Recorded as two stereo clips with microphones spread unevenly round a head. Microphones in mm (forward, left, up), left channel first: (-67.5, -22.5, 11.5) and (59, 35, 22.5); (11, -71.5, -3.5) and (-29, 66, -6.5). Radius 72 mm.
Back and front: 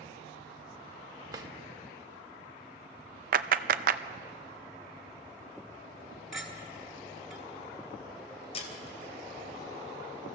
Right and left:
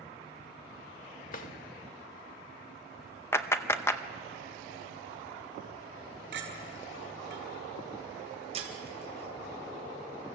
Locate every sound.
1.3 s a drawer: 40° right, 1.3 m
3.3 s a clap: straight ahead, 0.7 m
6.3 s a clink: 115° left, 5.5 m
8.5 s breaking glass: 155° left, 3 m